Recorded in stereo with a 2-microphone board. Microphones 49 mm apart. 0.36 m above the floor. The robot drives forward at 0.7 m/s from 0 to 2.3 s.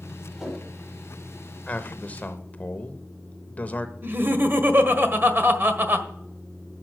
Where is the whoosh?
10° right (ahead or behind), 6.5 m.